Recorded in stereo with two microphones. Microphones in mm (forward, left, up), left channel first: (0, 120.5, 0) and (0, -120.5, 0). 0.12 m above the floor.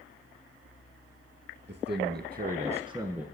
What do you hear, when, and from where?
1.7 s a man speaking: 45° right (ahead or behind), 2 m; by 3.2 s 5° right (ahead or behind), 1.4 m